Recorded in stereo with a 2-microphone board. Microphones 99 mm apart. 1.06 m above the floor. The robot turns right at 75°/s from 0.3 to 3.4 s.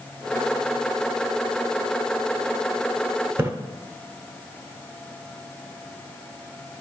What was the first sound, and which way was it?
A splash, 25° right (ahead or behind).